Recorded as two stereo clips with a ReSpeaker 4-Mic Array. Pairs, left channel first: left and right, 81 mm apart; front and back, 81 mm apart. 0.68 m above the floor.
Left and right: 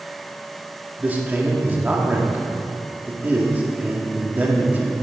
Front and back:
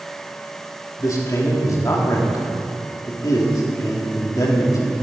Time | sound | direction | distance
1.0 | a man speaking | 25° right | 1.6 m